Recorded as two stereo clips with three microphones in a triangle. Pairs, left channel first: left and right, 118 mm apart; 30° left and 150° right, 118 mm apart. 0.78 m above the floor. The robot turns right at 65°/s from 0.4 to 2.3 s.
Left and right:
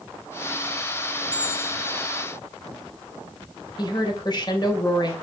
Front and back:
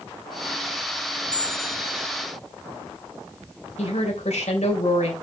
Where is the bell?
30° left, 5 m; by 2.3 s 95° left, 5 m.